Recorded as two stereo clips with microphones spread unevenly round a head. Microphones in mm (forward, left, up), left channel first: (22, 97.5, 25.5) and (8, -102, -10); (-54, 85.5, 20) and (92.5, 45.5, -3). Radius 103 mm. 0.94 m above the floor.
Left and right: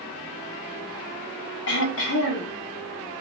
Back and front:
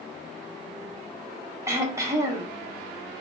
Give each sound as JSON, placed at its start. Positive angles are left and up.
{"t": 1.7, "sound": "throat clearing", "azimuth_deg": 60, "distance_m": 0.7}